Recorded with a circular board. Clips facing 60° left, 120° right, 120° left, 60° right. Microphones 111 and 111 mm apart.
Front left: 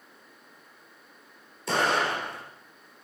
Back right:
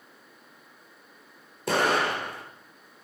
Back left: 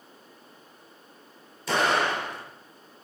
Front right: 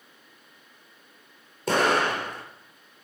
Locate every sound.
1.7 s an explosion: 95° right, 3.5 m